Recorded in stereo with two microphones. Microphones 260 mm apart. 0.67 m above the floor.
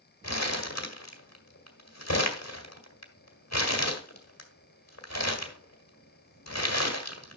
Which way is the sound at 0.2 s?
75° left (ahead or behind).